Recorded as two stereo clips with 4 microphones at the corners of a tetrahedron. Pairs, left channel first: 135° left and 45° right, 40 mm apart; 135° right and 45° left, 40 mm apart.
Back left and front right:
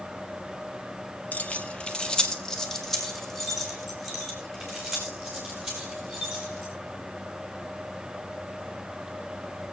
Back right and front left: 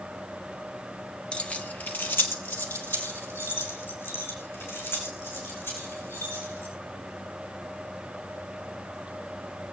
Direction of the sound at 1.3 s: 170° left.